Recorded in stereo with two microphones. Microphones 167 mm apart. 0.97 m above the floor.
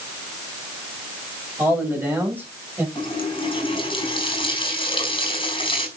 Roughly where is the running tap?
Left.